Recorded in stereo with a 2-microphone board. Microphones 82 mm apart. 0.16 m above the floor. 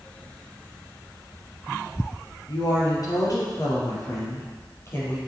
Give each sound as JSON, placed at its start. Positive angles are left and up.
{"t": 2.5, "sound": "a woman speaking", "side_deg": 55, "distance_m": 3.5}